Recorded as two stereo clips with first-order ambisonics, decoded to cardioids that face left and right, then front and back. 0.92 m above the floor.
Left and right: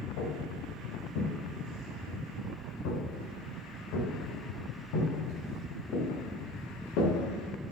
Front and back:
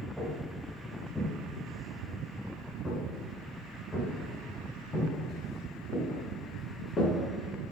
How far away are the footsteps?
About 4 m.